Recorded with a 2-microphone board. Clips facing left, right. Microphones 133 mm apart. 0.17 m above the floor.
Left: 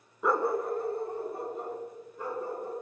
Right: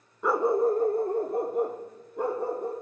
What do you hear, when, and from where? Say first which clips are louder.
0.2 s a dog barking: right 5 dB; 5° left (ahead or behind), 0.6 m; by 2.7 s 80° right, 2.5 m